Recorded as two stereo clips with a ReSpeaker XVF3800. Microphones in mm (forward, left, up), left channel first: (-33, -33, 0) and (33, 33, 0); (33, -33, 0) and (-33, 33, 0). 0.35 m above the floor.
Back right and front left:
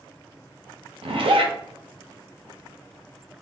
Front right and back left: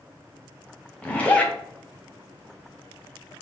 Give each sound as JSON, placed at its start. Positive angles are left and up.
{"t": 1.0, "sound": "a zipper", "azimuth_deg": 30, "distance_m": 0.6}